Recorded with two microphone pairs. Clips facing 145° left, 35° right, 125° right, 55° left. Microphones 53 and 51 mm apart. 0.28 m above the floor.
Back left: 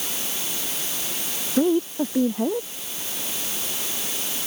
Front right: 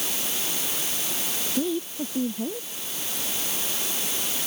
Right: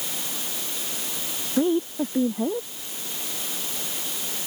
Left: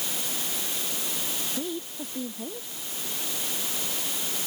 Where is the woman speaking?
175° right.